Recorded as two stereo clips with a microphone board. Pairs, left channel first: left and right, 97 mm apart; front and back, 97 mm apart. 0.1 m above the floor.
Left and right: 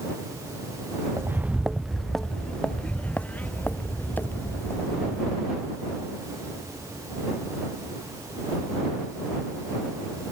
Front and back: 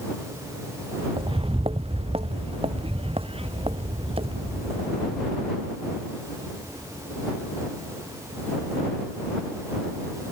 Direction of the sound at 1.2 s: 150° right.